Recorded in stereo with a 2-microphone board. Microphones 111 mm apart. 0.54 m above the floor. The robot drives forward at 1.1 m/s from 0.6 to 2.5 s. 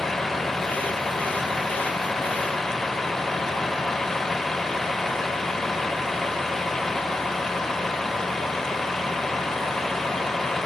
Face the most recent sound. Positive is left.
turn(degrees=5)  # may be behind; listen again after turning